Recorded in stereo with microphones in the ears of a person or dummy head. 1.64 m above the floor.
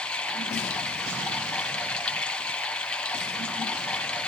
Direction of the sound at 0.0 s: 10° left (ahead or behind).